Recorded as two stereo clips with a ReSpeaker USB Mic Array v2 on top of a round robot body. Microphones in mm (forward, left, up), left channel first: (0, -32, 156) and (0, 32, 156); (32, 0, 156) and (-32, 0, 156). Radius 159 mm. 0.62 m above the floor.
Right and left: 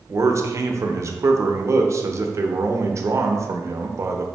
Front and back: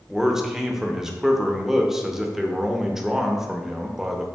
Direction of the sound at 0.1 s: 100° left.